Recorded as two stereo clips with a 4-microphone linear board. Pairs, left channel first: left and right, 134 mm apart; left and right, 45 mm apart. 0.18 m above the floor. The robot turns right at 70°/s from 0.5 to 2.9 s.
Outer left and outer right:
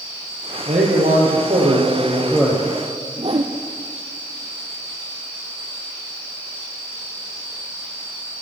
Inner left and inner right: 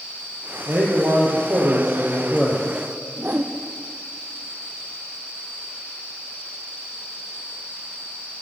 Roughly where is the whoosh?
Right.